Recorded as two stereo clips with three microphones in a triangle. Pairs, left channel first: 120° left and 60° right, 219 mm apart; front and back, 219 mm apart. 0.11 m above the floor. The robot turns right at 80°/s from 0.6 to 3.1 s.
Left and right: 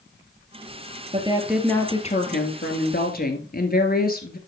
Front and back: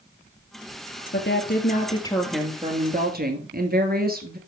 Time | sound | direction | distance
1.1 | a woman speaking | 5° right | 2 m